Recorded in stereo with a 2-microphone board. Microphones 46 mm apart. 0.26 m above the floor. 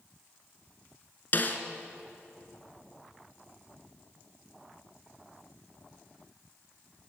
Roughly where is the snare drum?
Left.